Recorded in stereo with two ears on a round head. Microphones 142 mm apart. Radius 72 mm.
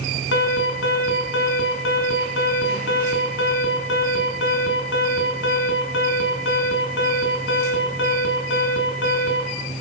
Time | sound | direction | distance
0.3 | an alarm | 85° left | 6 m